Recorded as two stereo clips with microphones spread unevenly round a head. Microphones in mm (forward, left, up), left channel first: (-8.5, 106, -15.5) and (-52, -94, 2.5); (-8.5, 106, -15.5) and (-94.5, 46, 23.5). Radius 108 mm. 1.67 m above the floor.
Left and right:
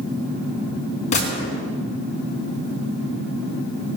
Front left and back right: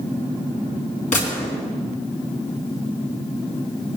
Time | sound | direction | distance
1.1 | a gunshot | 15° left | 3.5 m